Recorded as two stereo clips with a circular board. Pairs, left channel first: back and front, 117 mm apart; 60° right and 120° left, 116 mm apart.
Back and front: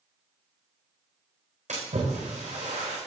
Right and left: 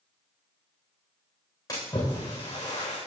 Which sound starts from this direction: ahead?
A splash, at 1.7 s.